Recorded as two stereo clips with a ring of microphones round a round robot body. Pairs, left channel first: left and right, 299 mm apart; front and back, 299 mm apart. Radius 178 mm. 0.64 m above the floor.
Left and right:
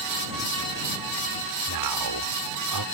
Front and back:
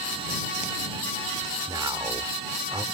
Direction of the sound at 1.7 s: 100° right.